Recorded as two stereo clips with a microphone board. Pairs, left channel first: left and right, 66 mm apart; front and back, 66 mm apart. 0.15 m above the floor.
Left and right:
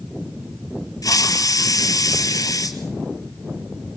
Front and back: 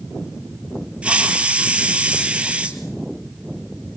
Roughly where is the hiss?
Left.